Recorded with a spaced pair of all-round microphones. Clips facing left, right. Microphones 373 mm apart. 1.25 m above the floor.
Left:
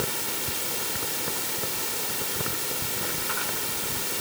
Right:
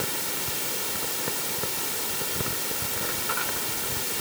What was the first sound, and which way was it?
Only background noise.